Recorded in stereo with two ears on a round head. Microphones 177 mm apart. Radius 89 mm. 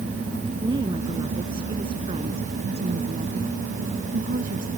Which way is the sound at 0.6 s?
20° right (ahead or behind).